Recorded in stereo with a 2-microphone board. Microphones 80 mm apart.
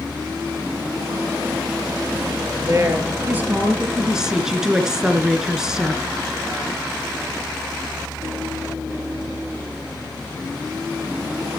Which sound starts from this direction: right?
A woman speaking, at 2.6 s.